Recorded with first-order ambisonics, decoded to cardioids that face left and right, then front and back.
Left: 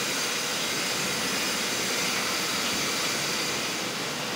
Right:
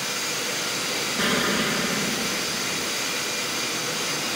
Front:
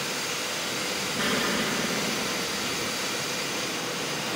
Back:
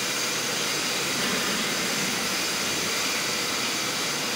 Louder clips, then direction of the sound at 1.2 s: Right 5 dB, even; 75° right.